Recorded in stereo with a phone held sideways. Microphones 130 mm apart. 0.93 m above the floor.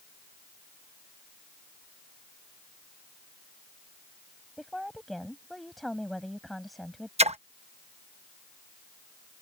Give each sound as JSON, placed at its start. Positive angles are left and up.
{"t": 4.6, "sound": "a woman speaking", "side_deg": 0}
{"t": 7.2, "sound": "a splash", "side_deg": -55}